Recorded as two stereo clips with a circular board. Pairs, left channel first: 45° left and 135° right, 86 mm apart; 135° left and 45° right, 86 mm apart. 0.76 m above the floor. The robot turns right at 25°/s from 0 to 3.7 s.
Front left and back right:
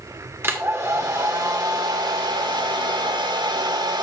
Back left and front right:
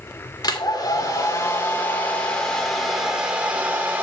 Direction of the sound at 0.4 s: 165° left.